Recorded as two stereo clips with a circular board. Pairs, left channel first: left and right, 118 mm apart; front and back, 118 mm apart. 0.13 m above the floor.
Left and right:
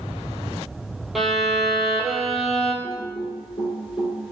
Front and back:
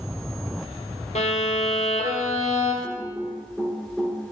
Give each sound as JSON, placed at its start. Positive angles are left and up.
{"t": 1.1, "sound": "a violin", "azimuth_deg": 0, "distance_m": 0.6}
{"t": 2.8, "sound": "typing on a keyboard", "azimuth_deg": 95, "distance_m": 1.2}